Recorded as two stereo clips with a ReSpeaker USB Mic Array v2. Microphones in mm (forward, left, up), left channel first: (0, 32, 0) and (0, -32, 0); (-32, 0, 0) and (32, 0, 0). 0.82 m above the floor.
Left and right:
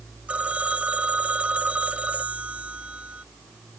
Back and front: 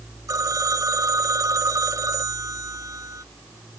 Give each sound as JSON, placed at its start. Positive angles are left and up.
{"t": 0.3, "sound": "a phone ringing", "azimuth_deg": -20}